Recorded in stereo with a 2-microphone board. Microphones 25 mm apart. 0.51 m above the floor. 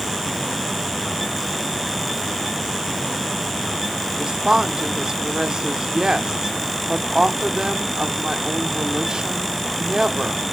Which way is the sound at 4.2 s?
25° right (ahead or behind).